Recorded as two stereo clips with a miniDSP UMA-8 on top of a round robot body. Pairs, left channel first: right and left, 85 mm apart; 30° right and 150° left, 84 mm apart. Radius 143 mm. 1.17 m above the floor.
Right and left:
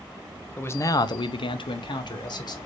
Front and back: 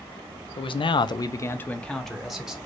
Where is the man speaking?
25° right, 0.6 m; by 2.6 s 125° right, 1.1 m.